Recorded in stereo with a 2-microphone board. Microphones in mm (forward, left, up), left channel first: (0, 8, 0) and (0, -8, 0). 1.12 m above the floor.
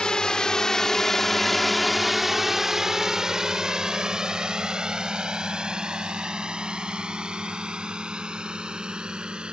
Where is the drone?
55° left (ahead or behind); by 9.5 s 65° right (ahead or behind).